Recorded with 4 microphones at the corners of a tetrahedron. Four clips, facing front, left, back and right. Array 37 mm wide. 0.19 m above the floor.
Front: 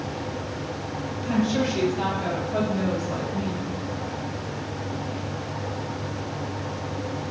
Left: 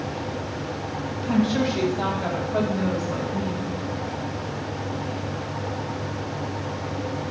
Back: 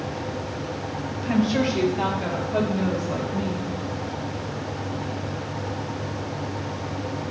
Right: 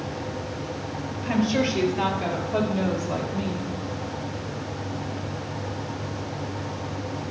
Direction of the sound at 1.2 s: 105° right.